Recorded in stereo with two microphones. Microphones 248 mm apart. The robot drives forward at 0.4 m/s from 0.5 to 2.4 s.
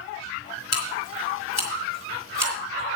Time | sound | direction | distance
0.7 | scissors | 60° left (ahead or behind) | 3 m